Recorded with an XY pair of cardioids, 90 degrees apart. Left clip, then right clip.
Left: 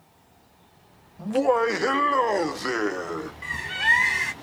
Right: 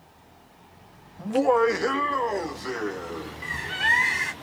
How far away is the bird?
About 1.4 m.